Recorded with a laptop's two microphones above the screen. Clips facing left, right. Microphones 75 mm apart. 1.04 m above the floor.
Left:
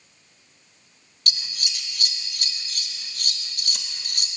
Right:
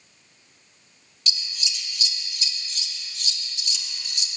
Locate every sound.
1.3 s scissors: 50° left (ahead or behind), 0.6 m